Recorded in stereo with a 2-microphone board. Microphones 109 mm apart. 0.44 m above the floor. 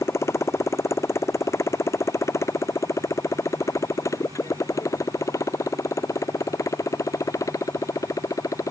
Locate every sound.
0.0 s a motorcycle: 25° left (ahead or behind); by 8.7 s 30° left (ahead or behind)